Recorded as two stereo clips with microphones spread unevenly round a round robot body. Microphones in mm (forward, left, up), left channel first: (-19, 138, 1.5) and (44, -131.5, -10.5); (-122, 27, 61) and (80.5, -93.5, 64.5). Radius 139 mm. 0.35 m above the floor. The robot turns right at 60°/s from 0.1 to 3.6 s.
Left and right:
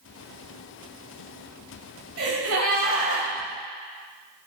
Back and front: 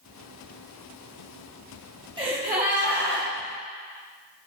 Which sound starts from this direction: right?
A gasp, at 2.2 s.